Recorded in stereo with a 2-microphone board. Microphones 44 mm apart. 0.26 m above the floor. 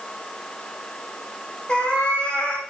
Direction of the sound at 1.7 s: 25° left (ahead or behind).